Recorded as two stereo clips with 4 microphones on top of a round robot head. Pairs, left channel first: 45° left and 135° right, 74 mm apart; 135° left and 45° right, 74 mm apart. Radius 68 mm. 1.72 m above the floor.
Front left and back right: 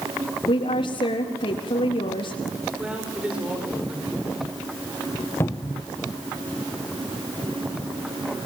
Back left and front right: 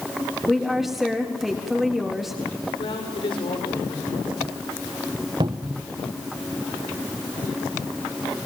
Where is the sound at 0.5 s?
40° left, 4 m.